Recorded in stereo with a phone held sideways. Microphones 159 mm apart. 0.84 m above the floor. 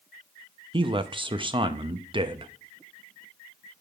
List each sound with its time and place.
0.7 s a man speaking: 30° right (ahead or behind), 0.6 m